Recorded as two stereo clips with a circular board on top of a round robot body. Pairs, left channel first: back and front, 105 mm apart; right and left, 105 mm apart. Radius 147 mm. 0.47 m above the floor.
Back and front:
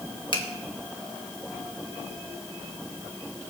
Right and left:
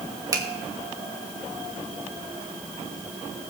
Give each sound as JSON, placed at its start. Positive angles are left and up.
{"t": 0.3, "sound": "a finger snap", "azimuth_deg": 145, "distance_m": 1.7}